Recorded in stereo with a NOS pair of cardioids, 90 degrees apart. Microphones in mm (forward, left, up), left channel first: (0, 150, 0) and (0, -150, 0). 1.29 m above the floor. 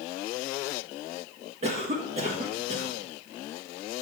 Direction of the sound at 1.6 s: 20° right.